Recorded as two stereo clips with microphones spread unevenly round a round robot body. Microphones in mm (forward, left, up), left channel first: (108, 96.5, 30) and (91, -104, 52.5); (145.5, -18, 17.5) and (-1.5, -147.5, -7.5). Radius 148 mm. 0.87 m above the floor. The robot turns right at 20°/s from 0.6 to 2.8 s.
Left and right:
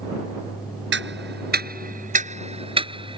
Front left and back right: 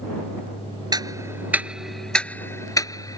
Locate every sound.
0.9 s ticking: 70° right; by 3.2 s 30° right